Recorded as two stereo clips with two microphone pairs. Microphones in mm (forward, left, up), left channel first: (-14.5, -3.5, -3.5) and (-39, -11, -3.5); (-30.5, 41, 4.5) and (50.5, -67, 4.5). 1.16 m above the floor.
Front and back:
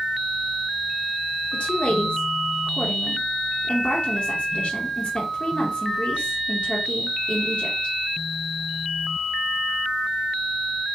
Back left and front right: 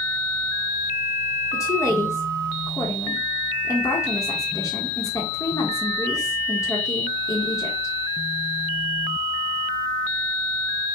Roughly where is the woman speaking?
Ahead left.